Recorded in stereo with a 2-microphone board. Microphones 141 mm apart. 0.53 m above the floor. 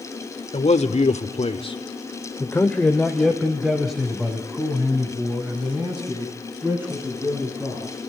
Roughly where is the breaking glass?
No breaking glass in this recording.